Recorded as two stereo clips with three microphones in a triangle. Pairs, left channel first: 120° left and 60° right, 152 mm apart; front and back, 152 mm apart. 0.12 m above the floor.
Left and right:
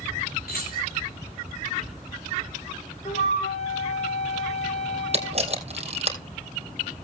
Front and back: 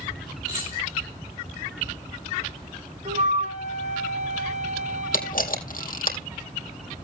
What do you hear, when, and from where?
0.5 s keys jangling: 115° left, 9 m
3.0 s a flute: 155° left, 3 m
5.1 s a camera shutter: 15° right, 3 m